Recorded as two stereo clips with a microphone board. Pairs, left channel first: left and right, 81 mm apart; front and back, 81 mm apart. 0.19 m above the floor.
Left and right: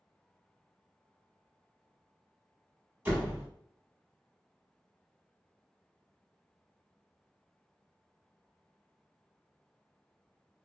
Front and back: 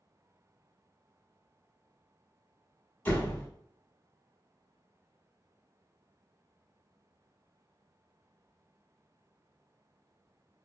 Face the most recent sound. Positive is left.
turn(degrees=-45)